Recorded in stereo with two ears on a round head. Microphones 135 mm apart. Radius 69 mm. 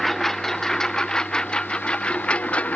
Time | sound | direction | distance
0.0 | a lawn mower | centre (ahead or behind) | ?